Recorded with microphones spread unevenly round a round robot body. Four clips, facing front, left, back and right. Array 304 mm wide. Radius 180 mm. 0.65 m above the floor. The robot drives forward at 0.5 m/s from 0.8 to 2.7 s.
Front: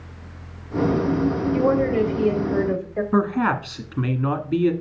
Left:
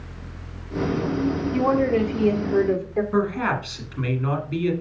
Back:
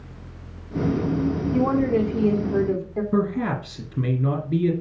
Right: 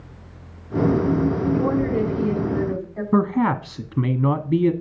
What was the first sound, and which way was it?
A woman speaking, 130° left.